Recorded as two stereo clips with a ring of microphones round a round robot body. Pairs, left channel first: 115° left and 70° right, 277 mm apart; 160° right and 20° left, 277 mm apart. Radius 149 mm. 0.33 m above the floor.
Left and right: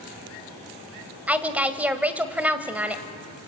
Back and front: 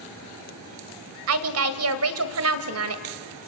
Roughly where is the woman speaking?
Ahead.